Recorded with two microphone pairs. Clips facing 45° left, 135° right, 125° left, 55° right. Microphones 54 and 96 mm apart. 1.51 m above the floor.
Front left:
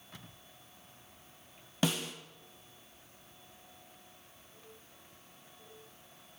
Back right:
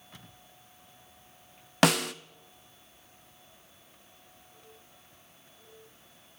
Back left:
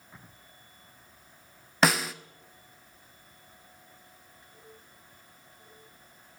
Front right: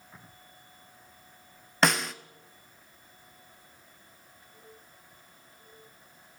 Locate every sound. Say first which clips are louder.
1.8 s a snare drum: back right 9 dB, back left 1 dB; 145° right, 0.6 m